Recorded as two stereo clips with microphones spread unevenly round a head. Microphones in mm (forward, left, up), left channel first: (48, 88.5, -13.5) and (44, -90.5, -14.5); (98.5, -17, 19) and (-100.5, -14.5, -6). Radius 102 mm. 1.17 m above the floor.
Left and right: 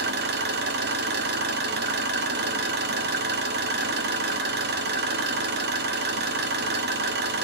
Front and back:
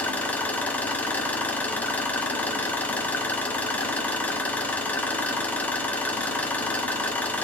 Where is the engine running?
80° right, 0.9 m.